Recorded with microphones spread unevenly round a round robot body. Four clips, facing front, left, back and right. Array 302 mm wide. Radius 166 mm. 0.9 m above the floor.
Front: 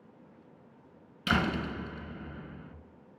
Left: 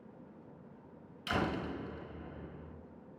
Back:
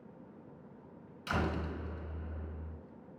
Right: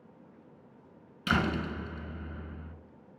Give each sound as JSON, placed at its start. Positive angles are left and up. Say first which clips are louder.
{"t": 1.3, "sound": "a door slam", "louder": "right 5 dB, front 6 dB", "azimuth_deg": -45, "distance_m": 3.0}